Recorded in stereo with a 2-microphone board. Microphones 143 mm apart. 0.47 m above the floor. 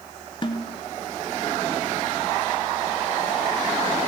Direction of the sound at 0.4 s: 35° left (ahead or behind).